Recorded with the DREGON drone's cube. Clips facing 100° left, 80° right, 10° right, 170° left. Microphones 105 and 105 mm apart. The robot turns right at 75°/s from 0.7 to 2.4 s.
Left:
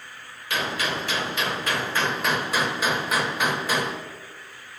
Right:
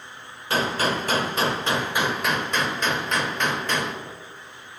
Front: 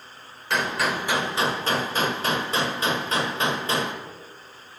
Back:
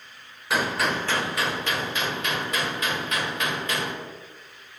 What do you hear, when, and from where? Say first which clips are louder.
0.5 s a gunshot: right 4 dB, even; 105° right, 1.3 m; by 4.0 s 20° left, 1.3 m